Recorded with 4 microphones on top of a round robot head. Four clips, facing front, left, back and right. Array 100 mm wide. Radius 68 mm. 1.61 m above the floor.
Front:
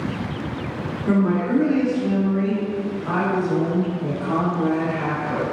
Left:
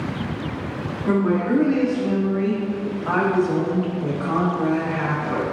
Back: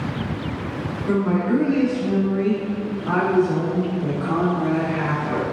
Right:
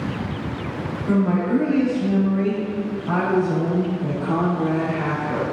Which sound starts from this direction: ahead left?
A woman speaking, at 1.1 s.